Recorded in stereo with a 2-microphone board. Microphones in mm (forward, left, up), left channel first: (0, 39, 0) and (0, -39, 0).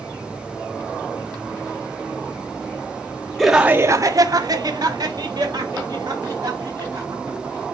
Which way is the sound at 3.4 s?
5° left (ahead or behind).